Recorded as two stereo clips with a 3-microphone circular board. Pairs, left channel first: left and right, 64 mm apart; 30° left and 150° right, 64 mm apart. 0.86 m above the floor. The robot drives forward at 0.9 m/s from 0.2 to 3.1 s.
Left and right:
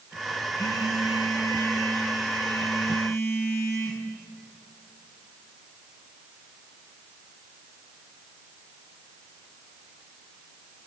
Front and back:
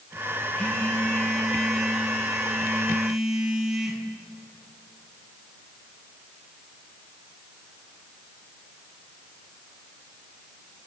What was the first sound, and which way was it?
A phone buzzing, 100° left.